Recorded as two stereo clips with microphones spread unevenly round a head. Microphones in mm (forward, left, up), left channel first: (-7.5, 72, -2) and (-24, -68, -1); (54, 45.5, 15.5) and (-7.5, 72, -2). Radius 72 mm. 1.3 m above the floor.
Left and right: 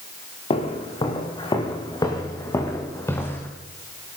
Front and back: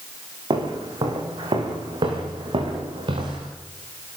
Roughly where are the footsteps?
Behind left.